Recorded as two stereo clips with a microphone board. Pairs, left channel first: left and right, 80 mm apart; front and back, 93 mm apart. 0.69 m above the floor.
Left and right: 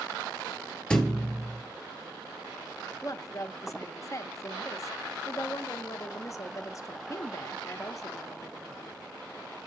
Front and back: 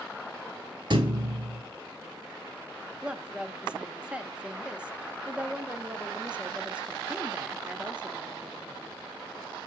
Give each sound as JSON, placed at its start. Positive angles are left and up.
{"t": 0.9, "sound": "a thud", "azimuth_deg": 170, "distance_m": 1.1}
{"t": 3.0, "sound": "a woman speaking", "azimuth_deg": 110, "distance_m": 0.6}